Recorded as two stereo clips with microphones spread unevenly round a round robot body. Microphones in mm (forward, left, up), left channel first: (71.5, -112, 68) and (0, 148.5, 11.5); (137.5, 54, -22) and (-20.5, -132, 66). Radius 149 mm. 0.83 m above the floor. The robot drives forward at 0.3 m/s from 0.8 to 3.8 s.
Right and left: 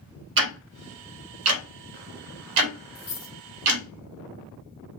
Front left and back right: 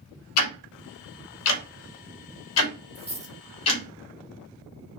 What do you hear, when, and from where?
0.4 s ticking: 55° left, 0.8 m; by 3.8 s 120° left, 0.8 m
3.0 s a dropped coin: 100° right, 0.6 m; by 3.3 s 110° right, 0.7 m